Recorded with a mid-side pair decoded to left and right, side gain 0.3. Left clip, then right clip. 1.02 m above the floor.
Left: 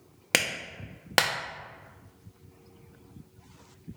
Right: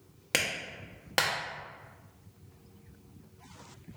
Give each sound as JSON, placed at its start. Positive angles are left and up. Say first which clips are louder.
{"t": 0.3, "sound": "a clap", "louder": "left 4 dB", "azimuth_deg": 60, "distance_m": 0.6}